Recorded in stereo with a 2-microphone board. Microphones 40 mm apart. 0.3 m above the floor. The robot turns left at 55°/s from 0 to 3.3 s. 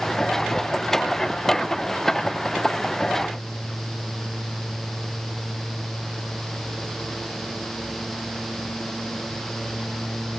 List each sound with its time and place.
Only background noise.